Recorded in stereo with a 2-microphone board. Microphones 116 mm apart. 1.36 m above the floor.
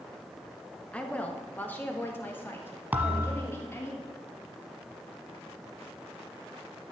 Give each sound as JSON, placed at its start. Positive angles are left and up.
{"t": 0.9, "sound": "a woman speaking", "side_deg": 10, "distance_m": 1.5}
{"t": 2.9, "sound": "a thud", "side_deg": -15, "distance_m": 1.3}